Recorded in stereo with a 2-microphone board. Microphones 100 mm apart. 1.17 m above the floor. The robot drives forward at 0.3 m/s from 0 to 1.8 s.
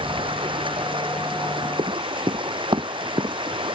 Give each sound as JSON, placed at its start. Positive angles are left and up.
{"t": 0.0, "sound": "running water", "side_deg": -60}
{"t": 1.8, "sound": "running footsteps", "side_deg": -55}